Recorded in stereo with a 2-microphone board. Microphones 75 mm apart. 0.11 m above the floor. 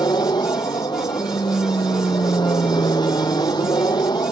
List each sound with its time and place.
0.0 s an aircraft: 70° left (ahead or behind)